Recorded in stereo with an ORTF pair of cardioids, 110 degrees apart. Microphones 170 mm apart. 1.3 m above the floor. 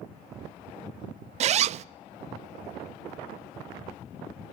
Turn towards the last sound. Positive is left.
turn(degrees=-45)